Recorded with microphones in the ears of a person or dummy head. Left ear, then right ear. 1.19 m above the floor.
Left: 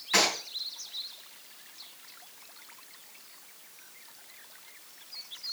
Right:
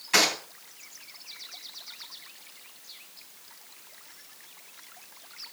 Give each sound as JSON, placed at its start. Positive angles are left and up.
{"t": 0.1, "sound": "a gunshot", "side_deg": 0, "distance_m": 3.0}